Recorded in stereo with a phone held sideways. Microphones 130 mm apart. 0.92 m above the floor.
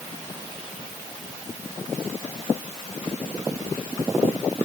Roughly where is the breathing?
No breathing in this recording.